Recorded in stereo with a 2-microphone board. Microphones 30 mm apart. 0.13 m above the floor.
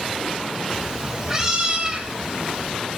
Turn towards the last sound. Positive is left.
turn(degrees=-20)  # may be behind; listen again after turning